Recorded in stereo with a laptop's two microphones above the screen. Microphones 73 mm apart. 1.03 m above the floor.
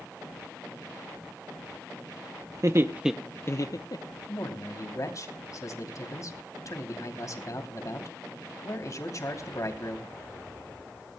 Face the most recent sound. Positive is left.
turn(degrees=50)  # may be behind; listen again after turning